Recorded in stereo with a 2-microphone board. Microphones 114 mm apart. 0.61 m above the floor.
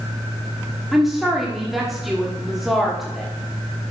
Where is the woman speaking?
Centre (ahead or behind), 1.2 m.